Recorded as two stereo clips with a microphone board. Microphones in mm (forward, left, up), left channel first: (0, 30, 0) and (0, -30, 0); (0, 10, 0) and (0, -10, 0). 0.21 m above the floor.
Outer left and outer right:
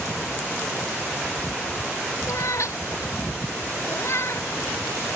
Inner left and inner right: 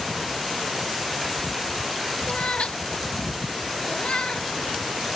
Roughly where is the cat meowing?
Left.